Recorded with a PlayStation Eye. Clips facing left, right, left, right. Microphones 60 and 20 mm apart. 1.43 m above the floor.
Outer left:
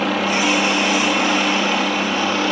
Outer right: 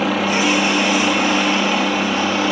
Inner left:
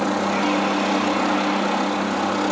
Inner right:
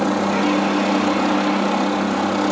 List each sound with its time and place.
0.0 s a helicopter: centre (ahead or behind); by 2.5 s 5° right (ahead or behind)